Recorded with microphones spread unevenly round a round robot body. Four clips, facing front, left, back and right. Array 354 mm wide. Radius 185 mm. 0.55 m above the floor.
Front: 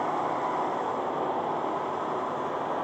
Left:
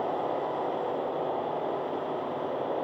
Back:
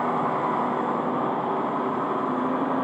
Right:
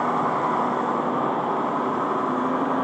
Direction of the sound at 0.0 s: 130° right.